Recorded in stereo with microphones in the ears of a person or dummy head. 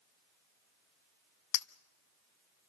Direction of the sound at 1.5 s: 60° left (ahead or behind).